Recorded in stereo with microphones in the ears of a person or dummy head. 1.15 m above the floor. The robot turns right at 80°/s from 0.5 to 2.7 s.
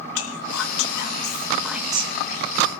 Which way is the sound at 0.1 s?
85° left.